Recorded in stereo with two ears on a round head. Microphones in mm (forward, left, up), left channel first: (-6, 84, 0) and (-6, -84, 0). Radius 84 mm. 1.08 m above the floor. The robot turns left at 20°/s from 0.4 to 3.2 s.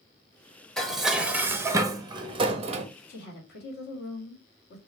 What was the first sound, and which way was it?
Dishes clattering, 5° left.